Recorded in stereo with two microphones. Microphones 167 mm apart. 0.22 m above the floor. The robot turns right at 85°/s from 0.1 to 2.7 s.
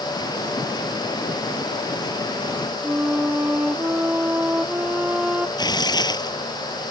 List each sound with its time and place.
2.8 s a flute: 10° right (ahead or behind)
5.6 s tearing paper: 25° left (ahead or behind)